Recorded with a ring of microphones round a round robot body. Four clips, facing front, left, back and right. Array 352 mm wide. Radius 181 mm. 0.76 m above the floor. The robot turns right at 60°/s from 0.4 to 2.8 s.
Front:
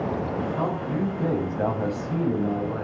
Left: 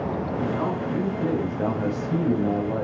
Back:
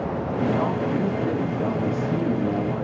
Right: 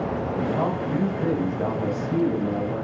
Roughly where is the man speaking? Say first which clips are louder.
Right 2 dB, back 3 dB; ahead right.